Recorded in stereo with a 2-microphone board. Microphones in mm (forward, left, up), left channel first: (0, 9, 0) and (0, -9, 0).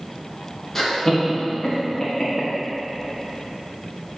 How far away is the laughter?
About 2 m.